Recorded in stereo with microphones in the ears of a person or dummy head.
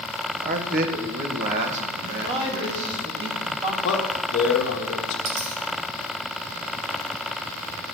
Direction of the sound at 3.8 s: 70° left (ahead or behind).